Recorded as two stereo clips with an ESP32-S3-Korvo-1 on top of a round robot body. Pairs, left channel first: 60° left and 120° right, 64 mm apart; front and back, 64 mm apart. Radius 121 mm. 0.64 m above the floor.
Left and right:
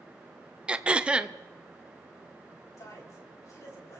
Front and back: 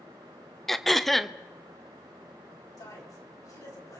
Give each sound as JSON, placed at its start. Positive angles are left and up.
{"t": 0.7, "sound": "throat clearing", "azimuth_deg": -80, "distance_m": 0.8}
{"t": 2.8, "sound": "a man speaking", "azimuth_deg": 25, "distance_m": 5.0}